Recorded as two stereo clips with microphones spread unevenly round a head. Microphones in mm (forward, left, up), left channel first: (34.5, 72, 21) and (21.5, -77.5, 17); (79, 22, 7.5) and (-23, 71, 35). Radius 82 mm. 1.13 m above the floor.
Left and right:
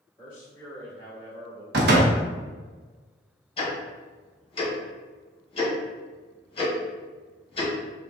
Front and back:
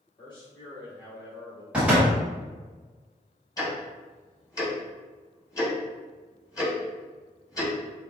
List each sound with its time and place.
0.2 s a man speaking: 25° left, 1.9 m
1.7 s a door slam: 120° right, 0.9 m
3.6 s ticking: 35° left, 1.9 m